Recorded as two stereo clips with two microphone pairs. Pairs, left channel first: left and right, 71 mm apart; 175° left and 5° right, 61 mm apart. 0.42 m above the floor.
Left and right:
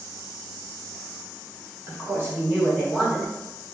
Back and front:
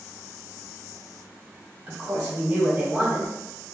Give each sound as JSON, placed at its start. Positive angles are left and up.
{"t": 1.9, "sound": "a woman speaking", "azimuth_deg": -90, "distance_m": 1.4}